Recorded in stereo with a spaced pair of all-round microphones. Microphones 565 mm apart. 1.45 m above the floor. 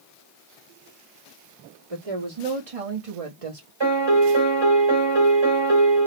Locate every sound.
1.9 s a woman speaking: 70° right (ahead or behind), 1.5 m; by 3.7 s 65° right (ahead or behind), 0.8 m
3.8 s a piano: 50° right (ahead or behind), 1.9 m